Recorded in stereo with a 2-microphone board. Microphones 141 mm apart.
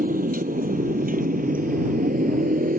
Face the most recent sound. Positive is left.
turn(degrees=-85)